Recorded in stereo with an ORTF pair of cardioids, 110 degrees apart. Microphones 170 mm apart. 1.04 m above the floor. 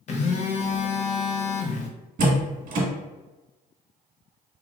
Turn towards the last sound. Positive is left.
turn(degrees=-55)